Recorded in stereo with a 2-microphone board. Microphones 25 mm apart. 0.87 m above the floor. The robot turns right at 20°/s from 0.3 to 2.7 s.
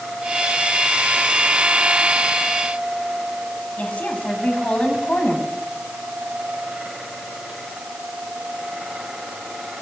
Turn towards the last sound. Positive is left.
turn(degrees=60)  # may be behind; listen again after turning